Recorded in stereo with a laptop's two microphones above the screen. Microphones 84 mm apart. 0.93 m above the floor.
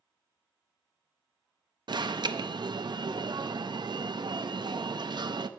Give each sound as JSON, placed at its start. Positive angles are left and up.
{"t": 1.9, "sound": "an alarm", "side_deg": -60, "distance_m": 0.6}